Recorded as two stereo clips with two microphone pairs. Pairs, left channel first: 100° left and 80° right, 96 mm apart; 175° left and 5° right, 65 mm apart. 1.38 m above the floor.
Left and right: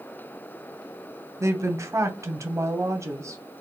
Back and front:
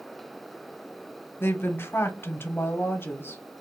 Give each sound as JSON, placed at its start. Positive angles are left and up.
{"t": 1.4, "sound": "a woman speaking", "azimuth_deg": -140, "distance_m": 0.7}